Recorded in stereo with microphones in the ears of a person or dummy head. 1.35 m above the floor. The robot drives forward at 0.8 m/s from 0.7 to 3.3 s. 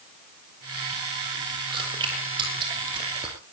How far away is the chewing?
About 6 m.